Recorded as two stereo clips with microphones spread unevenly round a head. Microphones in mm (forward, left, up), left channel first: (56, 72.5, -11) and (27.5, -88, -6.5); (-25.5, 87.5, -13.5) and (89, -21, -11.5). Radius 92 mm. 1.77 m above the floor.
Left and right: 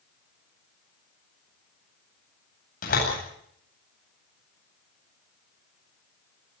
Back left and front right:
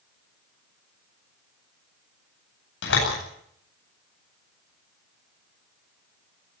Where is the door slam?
130° left, 9 m.